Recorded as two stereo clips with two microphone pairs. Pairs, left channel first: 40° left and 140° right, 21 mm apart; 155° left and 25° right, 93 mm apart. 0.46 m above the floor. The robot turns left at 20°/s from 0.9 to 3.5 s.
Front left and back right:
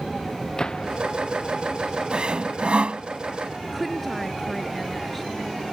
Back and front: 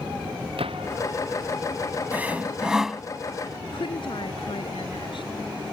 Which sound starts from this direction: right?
Sawing, at 2.1 s.